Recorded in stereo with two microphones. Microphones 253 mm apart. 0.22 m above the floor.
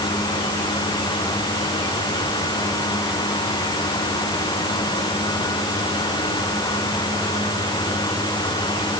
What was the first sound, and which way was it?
Only background noise.